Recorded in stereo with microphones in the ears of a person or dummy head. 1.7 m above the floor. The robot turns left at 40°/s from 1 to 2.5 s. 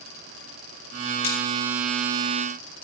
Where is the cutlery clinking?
45° left (ahead or behind), 2.5 m; by 1.4 s 50° left (ahead or behind), 2.5 m.